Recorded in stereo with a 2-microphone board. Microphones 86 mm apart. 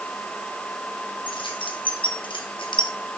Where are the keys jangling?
75° left (ahead or behind), 4 m; by 2.9 s 70° left (ahead or behind), 2.5 m.